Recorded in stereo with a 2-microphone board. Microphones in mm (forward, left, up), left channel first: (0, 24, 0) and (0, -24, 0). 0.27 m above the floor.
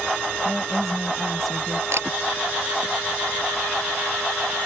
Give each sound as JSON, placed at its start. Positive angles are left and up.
{"t": 0.5, "sound": "a woman speaking", "side_deg": 5}
{"t": 1.9, "sound": "a camera shutter", "side_deg": -65}